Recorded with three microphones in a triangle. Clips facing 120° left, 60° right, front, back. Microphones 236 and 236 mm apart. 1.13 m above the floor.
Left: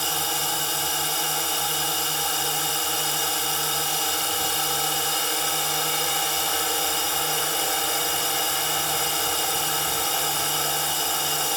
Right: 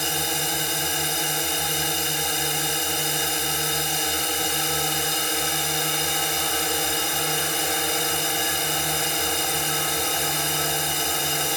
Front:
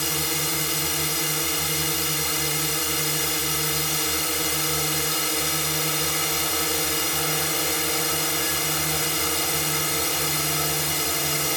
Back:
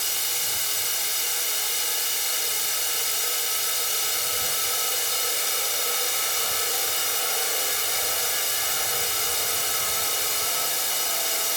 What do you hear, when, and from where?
0.0 s a drone: 10° left